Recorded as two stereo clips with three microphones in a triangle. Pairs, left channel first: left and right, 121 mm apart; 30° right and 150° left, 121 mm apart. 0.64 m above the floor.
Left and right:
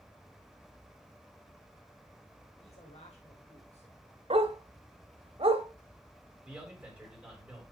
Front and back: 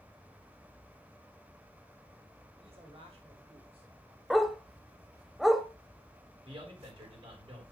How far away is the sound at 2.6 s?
About 3 m.